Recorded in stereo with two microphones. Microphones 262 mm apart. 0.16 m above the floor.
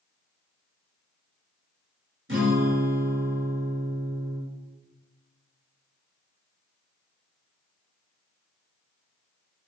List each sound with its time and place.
2.3 s a guitar: 50° right (ahead or behind), 2.5 m